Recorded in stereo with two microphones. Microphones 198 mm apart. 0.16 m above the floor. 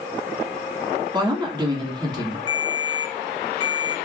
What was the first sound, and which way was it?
A woman speaking, 20° right (ahead or behind).